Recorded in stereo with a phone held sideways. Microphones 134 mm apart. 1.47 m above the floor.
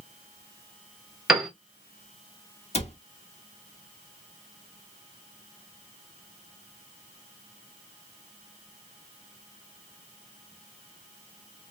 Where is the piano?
5° right (ahead or behind), 0.8 m.